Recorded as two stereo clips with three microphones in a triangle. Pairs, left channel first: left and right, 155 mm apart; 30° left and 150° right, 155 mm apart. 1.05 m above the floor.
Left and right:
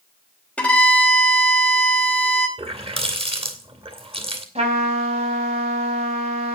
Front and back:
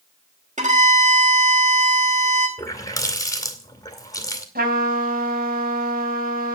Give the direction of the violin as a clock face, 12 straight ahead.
6 o'clock.